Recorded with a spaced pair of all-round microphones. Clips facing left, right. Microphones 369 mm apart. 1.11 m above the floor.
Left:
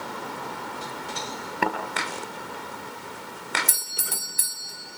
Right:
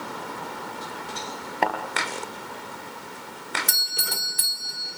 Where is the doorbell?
80° right, 4 m.